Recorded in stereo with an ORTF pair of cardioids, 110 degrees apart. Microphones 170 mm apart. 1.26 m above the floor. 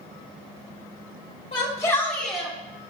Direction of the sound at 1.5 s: 30° left.